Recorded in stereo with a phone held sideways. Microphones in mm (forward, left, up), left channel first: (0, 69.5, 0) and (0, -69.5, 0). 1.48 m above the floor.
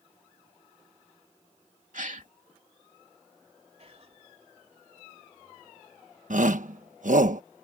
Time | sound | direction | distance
1.9 | a gasp | 70° right (ahead or behind) | ?
3.8 | whispering | 50° right (ahead or behind) | ?
6.3 | a shout | 65° right (ahead or behind) | ?